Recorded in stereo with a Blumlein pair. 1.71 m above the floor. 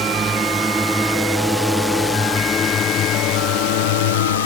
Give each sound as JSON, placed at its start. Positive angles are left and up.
{"t": 0.0, "sound": "a drone", "azimuth_deg": -20}